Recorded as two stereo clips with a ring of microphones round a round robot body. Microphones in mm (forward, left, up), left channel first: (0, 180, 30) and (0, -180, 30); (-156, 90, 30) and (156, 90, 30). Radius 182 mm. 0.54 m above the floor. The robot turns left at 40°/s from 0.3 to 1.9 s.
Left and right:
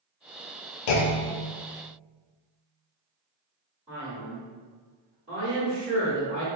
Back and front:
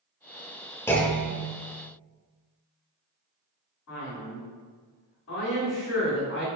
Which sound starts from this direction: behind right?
A man speaking, at 3.9 s.